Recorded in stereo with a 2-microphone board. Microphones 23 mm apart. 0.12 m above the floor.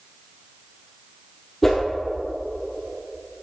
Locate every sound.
1.6 s a whoosh: 10° left (ahead or behind), 2 m